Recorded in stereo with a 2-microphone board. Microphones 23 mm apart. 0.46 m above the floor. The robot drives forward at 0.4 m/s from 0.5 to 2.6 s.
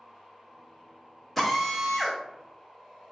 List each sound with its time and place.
1.4 s a drill: 5° left (ahead or behind), 0.6 m